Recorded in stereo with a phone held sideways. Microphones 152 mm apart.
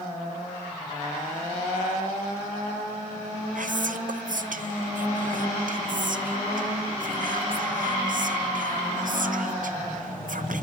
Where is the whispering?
70° right (ahead or behind), 0.6 m.